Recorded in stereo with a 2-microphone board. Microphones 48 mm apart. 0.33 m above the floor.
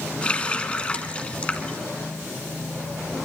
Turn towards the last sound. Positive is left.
turn(degrees=25)  # may be behind; listen again after turning